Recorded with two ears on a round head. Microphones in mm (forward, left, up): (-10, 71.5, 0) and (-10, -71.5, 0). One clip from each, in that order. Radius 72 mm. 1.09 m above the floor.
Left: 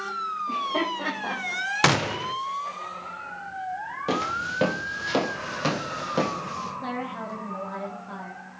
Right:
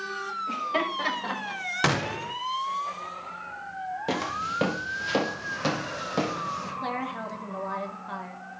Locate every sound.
0.5 s laughter: 55° right (ahead or behind), 6 m; by 1.6 s 50° right (ahead or behind), 5.5 m
1.8 s a gunshot: 20° left (ahead or behind), 0.8 m
4.1 s footsteps: 5° right (ahead or behind), 1.7 m
6.8 s a woman speaking: 35° right (ahead or behind), 3 m